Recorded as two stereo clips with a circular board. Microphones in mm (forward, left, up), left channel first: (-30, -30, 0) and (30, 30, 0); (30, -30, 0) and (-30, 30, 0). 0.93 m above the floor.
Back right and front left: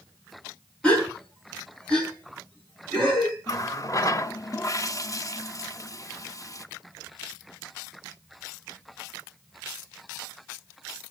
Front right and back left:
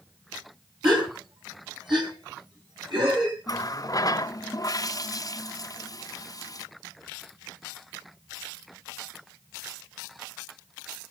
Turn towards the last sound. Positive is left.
turn(degrees=-90)